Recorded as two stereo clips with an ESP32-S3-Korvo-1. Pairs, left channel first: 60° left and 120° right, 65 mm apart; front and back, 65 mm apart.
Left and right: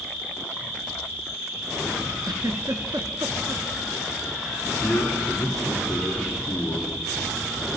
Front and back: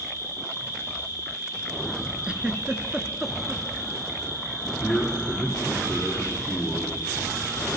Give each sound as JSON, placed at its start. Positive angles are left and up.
{"t": 0.0, "sound": "an insect", "azimuth_deg": 180, "distance_m": 6.0}
{"t": 2.2, "sound": "a giggle", "azimuth_deg": -110, "distance_m": 0.9}
{"t": 4.8, "sound": "a man speaking", "azimuth_deg": 100, "distance_m": 1.9}